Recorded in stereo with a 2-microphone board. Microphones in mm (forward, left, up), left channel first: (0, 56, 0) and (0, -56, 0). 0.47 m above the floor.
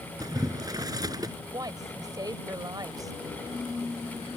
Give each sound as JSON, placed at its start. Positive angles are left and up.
{"t": 0.2, "sound": "boiling", "side_deg": -35}
{"t": 1.5, "sound": "a woman speaking", "side_deg": -35}